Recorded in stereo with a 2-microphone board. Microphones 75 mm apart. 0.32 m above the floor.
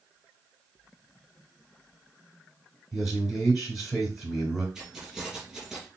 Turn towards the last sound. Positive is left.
turn(degrees=-5)  # may be behind; listen again after turning